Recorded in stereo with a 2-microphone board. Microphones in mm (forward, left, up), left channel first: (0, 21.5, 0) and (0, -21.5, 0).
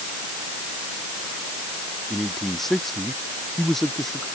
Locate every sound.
2.1 s a man speaking: 5° left (ahead or behind)